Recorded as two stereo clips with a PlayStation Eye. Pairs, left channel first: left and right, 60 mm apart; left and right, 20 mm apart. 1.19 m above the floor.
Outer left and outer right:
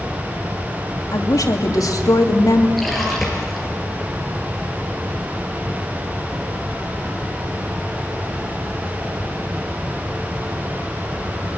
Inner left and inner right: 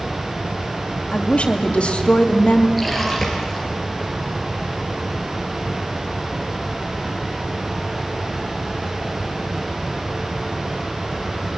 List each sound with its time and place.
1.1 s a woman speaking: 80° left, 2.5 m
2.8 s a splash: centre (ahead or behind), 5 m